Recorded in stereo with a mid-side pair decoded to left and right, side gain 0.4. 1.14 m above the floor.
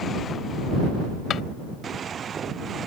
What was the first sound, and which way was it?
A drawer, 65° left.